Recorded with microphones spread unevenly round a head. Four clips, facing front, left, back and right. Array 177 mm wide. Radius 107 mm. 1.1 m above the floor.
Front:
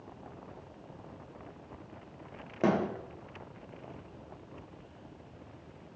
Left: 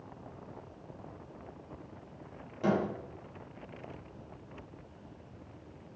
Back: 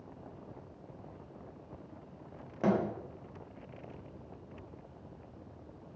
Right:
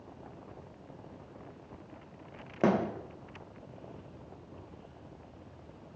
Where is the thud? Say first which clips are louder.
Right 2 dB, front 2 dB; 60° right, 0.8 m.